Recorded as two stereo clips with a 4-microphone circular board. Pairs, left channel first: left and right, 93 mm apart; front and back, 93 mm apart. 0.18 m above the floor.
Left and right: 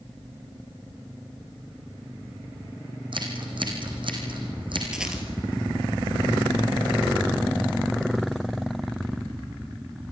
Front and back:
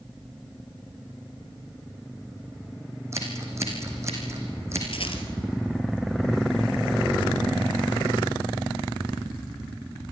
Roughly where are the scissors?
Behind right.